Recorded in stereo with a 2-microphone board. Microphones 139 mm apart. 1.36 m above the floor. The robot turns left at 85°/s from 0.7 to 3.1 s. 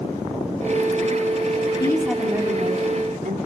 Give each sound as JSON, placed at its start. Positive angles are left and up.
{"t": 1.7, "sound": "a woman speaking", "azimuth_deg": 35, "distance_m": 3.0}